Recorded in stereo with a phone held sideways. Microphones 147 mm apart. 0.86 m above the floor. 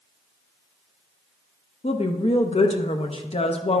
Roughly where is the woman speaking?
Left.